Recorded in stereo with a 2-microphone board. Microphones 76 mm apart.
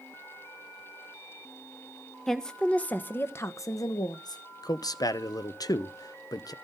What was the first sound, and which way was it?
A woman speaking, 5° left (ahead or behind).